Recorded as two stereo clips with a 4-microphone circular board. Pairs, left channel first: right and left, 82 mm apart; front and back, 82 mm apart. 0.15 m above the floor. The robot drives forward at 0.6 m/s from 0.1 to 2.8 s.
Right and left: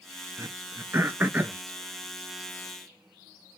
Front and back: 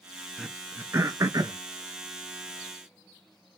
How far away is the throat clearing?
About 0.6 m.